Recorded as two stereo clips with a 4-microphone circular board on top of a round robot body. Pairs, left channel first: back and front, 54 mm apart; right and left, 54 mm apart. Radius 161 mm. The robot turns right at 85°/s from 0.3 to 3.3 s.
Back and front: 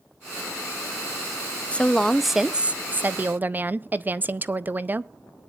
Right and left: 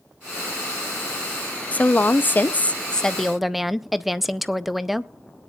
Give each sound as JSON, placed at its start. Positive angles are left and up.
{"t": 1.7, "sound": "a woman speaking", "azimuth_deg": -130, "distance_m": 0.7}